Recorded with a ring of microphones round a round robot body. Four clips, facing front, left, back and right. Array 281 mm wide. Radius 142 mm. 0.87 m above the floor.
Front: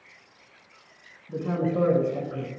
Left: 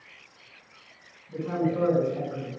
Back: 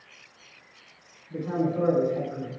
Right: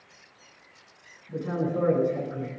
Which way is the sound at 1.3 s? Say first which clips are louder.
Left 1 dB, front 1 dB; 15° right.